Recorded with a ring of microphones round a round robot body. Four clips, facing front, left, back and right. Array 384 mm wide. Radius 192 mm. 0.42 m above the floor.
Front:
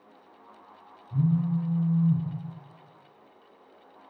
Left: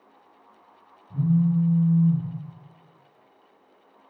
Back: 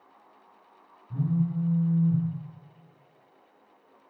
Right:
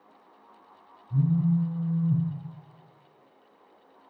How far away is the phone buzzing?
About 1.2 m.